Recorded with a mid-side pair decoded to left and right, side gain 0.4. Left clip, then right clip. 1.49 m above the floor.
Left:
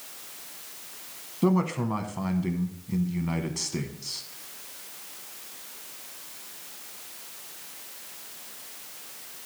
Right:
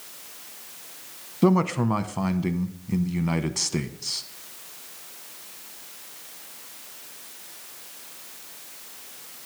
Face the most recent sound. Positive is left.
turn(degrees=-45)